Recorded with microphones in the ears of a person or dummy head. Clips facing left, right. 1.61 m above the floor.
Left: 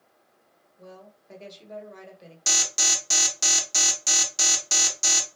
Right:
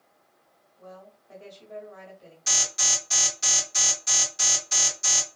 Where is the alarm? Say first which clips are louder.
Left 2 dB; 70° left (ahead or behind), 1.2 m.